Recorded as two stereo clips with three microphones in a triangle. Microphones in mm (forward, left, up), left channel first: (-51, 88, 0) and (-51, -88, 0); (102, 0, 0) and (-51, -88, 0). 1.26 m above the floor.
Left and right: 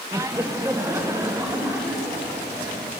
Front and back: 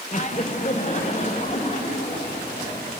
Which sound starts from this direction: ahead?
Laughter, at 0.1 s.